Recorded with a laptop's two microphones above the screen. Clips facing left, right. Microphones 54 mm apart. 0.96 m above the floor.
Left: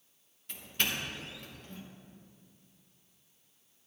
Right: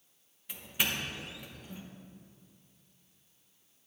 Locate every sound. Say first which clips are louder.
0.5 s a doorbell: right 1 dB; 10° right (ahead or behind), 1.1 m